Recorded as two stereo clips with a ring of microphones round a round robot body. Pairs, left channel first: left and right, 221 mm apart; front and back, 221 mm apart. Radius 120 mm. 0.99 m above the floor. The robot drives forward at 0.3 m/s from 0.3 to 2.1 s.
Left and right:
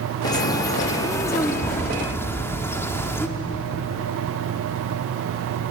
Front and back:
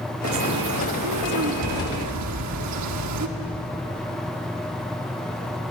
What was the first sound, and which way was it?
A bird, 165° left.